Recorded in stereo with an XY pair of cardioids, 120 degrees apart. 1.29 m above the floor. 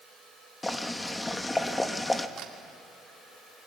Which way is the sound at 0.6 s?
10° left.